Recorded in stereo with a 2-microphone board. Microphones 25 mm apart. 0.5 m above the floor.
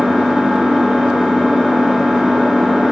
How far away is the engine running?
About 0.8 m.